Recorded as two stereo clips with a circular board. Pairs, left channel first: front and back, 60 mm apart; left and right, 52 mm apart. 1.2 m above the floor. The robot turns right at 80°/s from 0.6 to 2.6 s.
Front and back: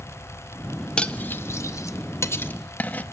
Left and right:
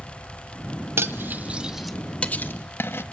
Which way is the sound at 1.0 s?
75° right.